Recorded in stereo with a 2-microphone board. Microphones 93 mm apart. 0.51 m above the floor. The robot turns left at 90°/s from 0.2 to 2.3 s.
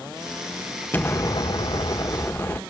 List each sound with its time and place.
0.9 s an explosion: 155° left, 0.9 m; by 2.6 s 35° left, 0.9 m